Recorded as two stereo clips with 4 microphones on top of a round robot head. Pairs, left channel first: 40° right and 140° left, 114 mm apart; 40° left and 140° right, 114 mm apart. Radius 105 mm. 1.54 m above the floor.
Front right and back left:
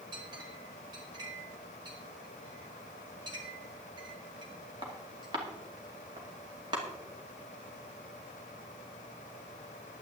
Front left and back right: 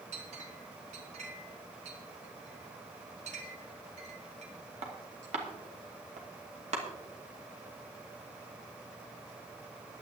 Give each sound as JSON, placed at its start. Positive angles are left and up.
{"t": 0.1, "sound": "a clink", "azimuth_deg": -165, "distance_m": 2.5}